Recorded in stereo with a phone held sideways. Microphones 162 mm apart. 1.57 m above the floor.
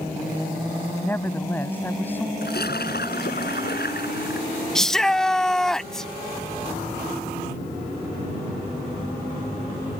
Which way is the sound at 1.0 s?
10° left (ahead or behind).